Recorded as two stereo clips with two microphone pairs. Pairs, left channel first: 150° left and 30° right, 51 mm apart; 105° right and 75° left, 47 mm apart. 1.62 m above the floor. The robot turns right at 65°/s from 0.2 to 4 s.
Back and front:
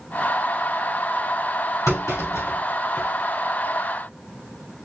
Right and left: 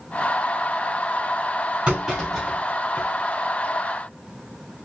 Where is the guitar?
I don't hear a guitar.